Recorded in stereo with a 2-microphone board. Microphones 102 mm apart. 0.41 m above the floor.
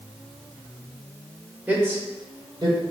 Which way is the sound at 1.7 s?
15° right (ahead or behind).